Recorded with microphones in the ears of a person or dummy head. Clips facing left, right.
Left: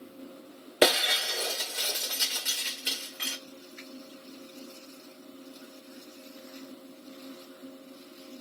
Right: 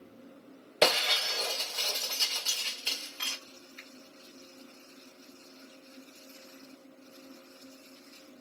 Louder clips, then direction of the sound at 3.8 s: Left 7 dB; 65° left (ahead or behind).